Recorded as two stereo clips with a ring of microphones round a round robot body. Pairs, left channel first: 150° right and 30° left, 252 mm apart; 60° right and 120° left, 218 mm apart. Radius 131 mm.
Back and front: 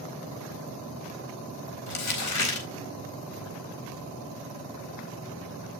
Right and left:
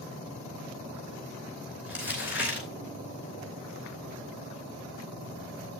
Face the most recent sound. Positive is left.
turn(degrees=-155)